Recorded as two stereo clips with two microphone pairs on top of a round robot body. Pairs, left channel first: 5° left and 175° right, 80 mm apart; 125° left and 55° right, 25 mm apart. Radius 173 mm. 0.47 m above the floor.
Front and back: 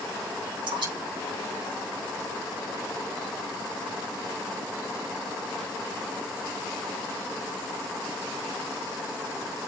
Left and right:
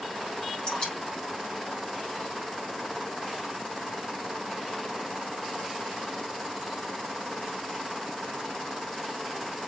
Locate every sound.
0.7 s dripping: 175° left, 6.5 m